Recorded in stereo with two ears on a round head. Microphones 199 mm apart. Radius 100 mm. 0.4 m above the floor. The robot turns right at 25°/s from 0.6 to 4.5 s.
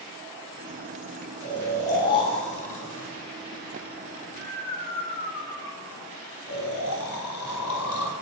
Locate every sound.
1.4 s snoring: 5° left (ahead or behind), 2.5 m; by 8.1 s 80° left, 2.5 m